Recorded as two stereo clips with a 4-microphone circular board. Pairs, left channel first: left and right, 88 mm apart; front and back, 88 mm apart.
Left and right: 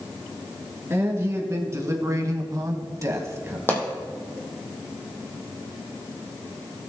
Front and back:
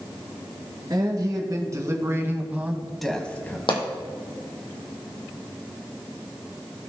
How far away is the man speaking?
About 2.5 m.